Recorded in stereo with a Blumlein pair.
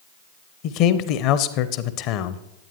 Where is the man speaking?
40° left, 0.7 m.